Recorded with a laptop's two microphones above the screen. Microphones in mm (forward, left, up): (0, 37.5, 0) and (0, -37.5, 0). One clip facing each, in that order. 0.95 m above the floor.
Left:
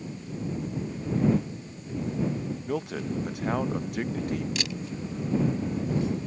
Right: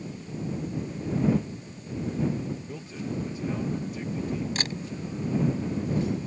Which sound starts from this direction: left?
A man speaking, at 2.7 s.